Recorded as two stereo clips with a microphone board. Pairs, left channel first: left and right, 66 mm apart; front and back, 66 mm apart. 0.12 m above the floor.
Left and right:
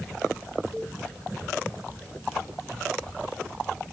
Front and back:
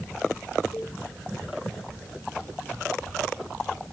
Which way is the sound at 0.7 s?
25° left.